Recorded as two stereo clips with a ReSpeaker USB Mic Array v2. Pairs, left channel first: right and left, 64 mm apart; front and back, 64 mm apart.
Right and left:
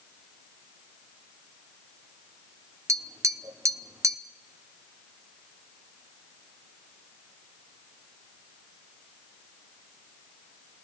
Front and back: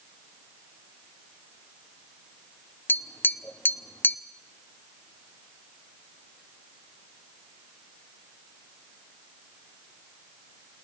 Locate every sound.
2.9 s tapping: 55° left, 0.9 m